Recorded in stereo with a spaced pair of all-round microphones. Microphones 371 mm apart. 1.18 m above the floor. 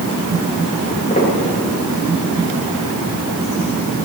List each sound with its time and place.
0.8 s footsteps: 20° left (ahead or behind), 7.5 m